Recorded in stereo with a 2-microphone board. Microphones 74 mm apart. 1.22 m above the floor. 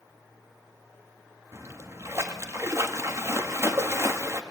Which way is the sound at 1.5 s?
40° right (ahead or behind).